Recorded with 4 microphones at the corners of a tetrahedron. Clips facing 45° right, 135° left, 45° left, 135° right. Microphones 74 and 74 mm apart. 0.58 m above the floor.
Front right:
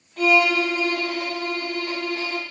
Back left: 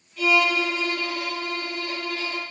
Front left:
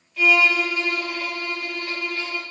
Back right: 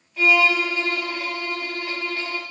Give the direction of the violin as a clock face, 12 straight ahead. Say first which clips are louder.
Front right 3 dB, even; 2 o'clock.